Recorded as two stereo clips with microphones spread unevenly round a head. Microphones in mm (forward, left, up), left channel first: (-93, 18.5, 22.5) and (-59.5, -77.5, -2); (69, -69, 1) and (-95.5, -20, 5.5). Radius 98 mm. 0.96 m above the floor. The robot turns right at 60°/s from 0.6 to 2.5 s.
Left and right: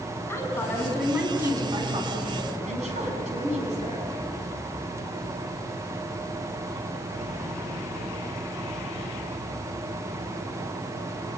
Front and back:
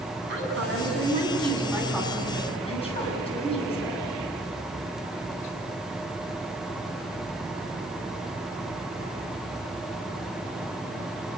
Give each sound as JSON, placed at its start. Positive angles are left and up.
{"t": 0.3, "sound": "a woman speaking", "azimuth_deg": 175, "distance_m": 8.5}